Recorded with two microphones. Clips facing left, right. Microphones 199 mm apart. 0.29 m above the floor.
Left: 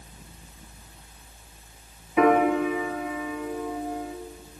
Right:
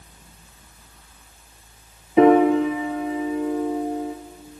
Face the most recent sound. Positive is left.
turn(degrees=-30)  # may be behind; listen again after turning